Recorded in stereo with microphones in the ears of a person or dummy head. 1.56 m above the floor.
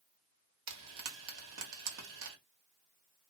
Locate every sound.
0.7 s frying: 65° right (ahead or behind), 1.1 m